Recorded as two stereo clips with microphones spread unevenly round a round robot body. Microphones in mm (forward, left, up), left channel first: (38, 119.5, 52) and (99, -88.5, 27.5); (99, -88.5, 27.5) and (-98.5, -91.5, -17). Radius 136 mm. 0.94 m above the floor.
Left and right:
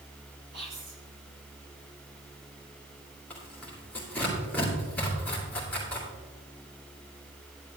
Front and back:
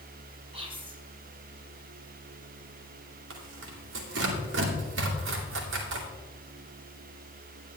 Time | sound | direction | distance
0.5 | whispering | 120° right | 3.5 m
3.3 | tearing paper | 170° right | 2.5 m